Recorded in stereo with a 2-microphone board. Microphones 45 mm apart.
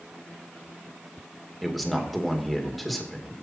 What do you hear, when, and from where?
1.6 s a man speaking: centre (ahead or behind), 2.5 m